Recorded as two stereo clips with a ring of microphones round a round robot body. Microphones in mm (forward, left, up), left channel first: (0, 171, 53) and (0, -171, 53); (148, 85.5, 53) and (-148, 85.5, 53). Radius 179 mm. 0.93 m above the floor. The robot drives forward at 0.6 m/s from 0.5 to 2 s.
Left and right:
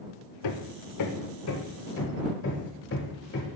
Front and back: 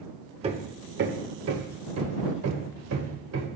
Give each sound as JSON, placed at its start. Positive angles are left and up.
{"t": 0.4, "sound": "hammering", "azimuth_deg": 110, "distance_m": 0.9}